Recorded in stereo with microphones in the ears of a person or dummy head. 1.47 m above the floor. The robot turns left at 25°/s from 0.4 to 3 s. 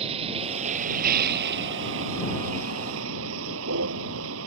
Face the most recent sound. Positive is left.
turn(degrees=-100)